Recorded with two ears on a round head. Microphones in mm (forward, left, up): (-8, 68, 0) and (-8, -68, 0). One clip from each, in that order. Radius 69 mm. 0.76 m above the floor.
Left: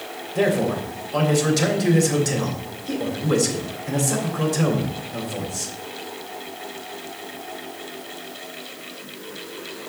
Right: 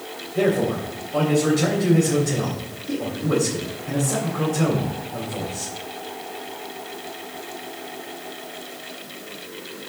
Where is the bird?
No bird in this recording.